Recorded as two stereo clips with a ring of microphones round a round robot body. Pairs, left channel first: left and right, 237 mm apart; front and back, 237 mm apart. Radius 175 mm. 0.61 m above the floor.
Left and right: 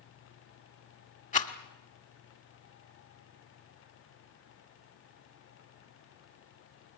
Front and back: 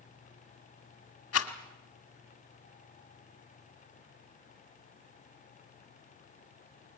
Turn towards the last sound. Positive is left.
turn(degrees=30)